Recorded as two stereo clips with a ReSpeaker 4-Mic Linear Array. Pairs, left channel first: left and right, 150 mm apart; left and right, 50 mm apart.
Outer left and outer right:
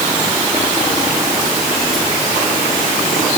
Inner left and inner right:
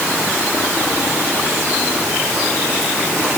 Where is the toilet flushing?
No toilet flushing in this recording.